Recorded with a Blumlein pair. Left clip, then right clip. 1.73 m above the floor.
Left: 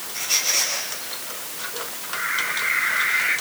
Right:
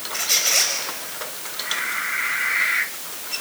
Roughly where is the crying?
No crying in this recording.